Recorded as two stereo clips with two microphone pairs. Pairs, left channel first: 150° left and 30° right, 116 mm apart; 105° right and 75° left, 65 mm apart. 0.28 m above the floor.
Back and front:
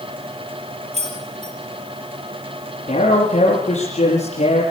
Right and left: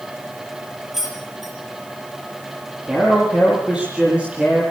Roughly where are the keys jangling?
Ahead.